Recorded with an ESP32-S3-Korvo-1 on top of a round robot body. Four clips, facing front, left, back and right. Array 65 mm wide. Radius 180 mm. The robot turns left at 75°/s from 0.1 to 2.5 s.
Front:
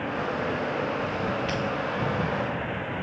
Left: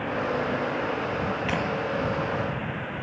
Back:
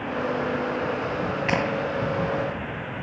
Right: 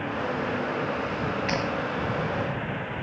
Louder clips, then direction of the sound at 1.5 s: Even, back 4 dB; 170° right.